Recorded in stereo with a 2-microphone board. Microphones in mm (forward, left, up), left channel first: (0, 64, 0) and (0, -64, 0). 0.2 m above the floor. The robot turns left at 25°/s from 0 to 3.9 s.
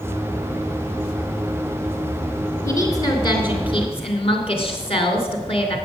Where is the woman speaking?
155° left, 3 m; by 5.8 s 120° left, 3 m.